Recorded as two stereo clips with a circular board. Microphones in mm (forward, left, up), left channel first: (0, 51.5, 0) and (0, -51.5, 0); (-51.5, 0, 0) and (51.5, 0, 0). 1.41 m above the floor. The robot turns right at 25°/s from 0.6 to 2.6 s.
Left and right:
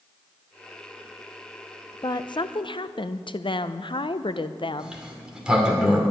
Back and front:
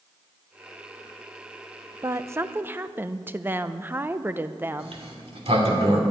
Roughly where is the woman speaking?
Ahead left.